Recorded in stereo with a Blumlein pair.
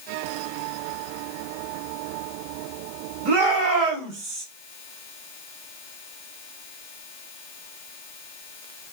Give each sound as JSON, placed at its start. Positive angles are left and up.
{"t": 3.2, "sound": "a shout", "azimuth_deg": -45, "distance_m": 2.0}